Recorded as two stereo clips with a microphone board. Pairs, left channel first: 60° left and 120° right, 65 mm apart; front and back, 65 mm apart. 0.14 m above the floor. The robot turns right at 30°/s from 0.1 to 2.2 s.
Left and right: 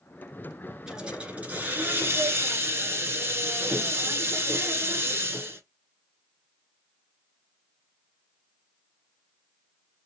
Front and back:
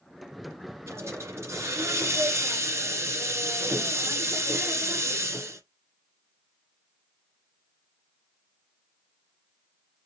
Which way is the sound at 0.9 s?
160° left.